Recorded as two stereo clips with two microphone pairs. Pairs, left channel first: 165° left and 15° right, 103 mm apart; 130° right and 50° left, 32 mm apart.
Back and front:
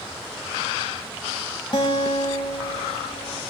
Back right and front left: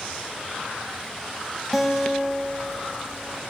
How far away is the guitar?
About 1.0 m.